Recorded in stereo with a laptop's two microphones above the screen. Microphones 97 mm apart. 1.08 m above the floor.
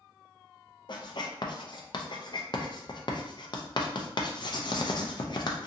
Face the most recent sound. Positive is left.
turn(degrees=50)  # may be behind; listen again after turning